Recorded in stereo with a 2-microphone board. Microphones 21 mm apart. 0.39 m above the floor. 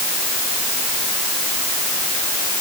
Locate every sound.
Only background noise.